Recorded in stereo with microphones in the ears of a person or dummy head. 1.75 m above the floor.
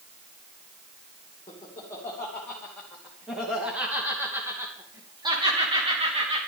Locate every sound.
1.5 s laughter: 15° left (ahead or behind), 3 m; by 6.4 s 35° right (ahead or behind), 3 m